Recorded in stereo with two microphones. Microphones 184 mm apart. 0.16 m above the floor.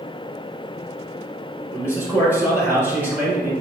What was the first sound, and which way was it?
A man speaking, 10° right (ahead or behind).